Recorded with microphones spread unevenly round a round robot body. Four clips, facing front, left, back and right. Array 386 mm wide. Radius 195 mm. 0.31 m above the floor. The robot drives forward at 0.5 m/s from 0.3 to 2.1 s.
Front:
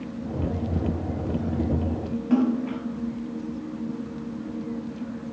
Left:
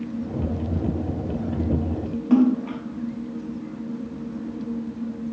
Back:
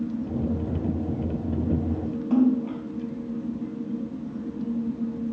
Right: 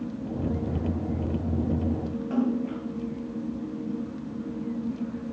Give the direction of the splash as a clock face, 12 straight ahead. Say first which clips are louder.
Left 9 dB, back 1 dB; 9 o'clock.